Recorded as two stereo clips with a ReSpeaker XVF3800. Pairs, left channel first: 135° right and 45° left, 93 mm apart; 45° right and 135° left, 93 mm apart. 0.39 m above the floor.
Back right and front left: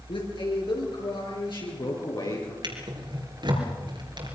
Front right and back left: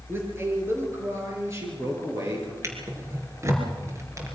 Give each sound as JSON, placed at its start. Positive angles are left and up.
{"t": 0.1, "sound": "a man speaking", "azimuth_deg": -160, "distance_m": 6.5}
{"t": 2.6, "sound": "a drawer", "azimuth_deg": 75, "distance_m": 4.5}